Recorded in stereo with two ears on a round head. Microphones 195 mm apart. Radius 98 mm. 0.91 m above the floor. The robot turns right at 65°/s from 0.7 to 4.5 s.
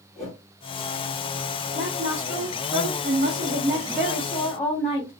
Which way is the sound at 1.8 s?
150° right.